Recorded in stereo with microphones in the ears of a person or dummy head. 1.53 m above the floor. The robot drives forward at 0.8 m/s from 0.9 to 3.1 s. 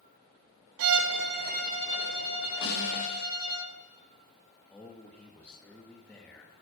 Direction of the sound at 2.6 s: 90° left.